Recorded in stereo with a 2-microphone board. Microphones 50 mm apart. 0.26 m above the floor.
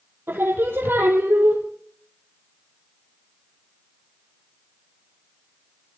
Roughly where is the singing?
Right.